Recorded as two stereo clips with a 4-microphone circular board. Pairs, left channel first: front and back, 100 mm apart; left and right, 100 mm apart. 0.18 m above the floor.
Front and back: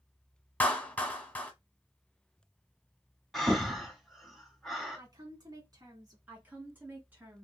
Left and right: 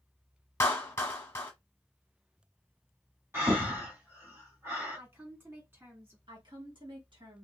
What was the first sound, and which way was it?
A clap, 55° left.